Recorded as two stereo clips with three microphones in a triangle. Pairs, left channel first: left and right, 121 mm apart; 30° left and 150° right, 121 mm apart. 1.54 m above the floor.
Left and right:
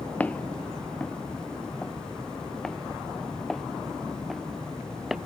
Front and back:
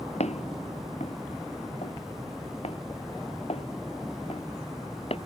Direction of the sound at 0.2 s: 15° left.